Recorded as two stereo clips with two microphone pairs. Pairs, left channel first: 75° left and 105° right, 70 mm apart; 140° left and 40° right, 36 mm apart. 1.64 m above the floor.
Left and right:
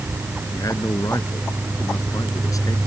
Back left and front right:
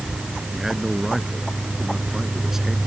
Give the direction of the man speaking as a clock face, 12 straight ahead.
11 o'clock.